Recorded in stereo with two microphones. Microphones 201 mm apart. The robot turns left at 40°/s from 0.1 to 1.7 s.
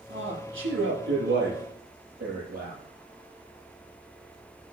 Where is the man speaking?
70° right, 8 m; by 2.8 s 130° right, 8 m.